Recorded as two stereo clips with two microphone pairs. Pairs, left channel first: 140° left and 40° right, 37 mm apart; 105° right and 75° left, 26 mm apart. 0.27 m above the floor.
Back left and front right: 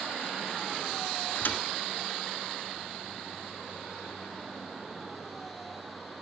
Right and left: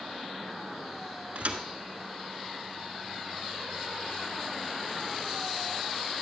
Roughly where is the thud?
Left.